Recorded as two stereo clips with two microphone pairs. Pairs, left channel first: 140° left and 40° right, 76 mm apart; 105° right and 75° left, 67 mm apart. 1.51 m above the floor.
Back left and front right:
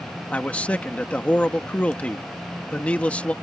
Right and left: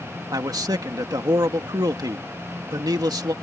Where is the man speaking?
65° left.